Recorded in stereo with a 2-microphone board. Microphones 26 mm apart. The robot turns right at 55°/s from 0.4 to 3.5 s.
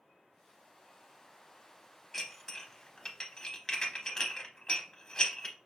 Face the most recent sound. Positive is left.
turn(degrees=30)  # may be behind; listen again after turning